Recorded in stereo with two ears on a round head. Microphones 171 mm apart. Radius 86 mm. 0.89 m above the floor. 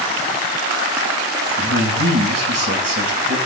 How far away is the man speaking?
About 6.5 m.